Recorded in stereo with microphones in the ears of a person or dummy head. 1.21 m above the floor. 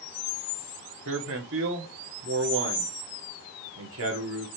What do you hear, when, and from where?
1.1 s a man speaking: 60° right (ahead or behind), 1.2 m